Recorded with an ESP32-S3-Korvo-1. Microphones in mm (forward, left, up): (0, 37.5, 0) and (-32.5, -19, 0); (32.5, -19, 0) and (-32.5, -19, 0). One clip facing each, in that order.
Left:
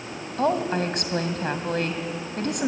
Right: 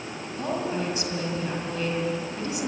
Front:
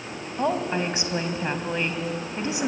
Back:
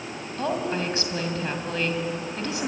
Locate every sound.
0.4 s a woman speaking: 65° left, 2.5 m